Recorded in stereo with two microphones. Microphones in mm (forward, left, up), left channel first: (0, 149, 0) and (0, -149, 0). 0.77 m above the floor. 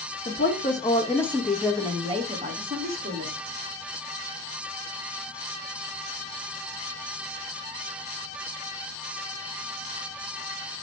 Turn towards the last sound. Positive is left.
turn(degrees=-35)  # may be behind; listen again after turning